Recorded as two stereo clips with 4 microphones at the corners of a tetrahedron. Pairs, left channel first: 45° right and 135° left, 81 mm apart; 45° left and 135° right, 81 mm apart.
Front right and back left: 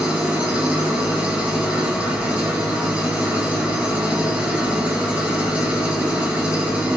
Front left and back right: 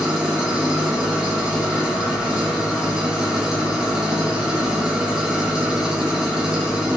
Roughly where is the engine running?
Behind.